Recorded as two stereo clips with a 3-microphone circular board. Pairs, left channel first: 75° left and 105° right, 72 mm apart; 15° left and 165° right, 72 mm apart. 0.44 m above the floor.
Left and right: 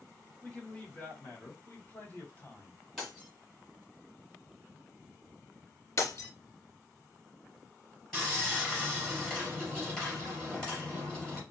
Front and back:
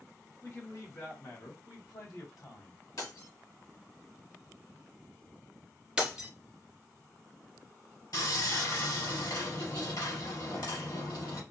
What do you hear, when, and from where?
0.4 s a man speaking: 10° left, 1.7 m; by 2.8 s 20° left, 2.5 m
3.0 s breaking glass: 10° right, 2.5 m
6.0 s breaking glass: 120° left, 1.7 m
8.1 s sawing: 5° right, 3.5 m